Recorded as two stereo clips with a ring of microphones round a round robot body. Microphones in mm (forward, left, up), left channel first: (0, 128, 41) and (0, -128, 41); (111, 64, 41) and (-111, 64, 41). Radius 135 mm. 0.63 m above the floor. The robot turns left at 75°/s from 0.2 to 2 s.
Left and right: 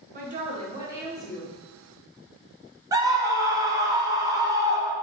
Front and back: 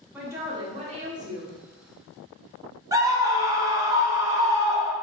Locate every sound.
0.1 s a woman speaking: 105° right, 0.9 m; by 1.5 s 155° left, 0.9 m
2.9 s a scream: 135° right, 0.6 m